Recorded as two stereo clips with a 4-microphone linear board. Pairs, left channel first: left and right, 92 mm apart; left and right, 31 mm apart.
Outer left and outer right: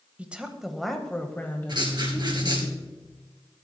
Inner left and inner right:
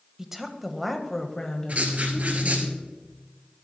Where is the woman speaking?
15° right (ahead or behind), 1.2 m; by 2.7 s 35° left (ahead or behind), 1.6 m.